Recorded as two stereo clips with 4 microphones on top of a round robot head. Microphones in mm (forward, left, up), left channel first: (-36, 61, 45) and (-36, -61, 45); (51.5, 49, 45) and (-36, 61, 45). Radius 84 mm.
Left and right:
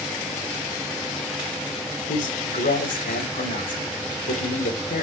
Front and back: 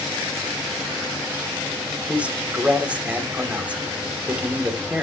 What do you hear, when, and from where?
2.1 s a man speaking: 95° left, 3 m